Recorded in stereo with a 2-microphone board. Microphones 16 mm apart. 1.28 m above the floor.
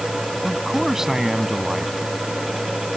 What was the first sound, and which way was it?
A man speaking, 25° right (ahead or behind).